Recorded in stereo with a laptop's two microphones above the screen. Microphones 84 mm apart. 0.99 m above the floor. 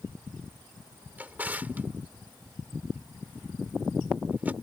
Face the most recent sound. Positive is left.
turn(degrees=-20)  # may be behind; listen again after turning